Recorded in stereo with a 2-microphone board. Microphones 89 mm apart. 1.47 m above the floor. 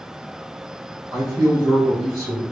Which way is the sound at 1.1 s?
45° right (ahead or behind).